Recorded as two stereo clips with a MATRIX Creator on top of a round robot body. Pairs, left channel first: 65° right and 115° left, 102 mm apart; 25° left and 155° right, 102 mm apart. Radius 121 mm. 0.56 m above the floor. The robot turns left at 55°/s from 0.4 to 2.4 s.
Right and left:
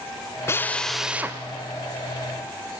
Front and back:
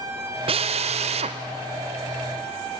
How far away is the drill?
About 0.9 m.